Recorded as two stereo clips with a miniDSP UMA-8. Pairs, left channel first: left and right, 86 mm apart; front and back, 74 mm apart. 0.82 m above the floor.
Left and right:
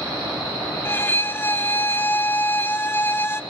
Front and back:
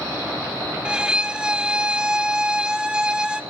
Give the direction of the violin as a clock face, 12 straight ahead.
8 o'clock.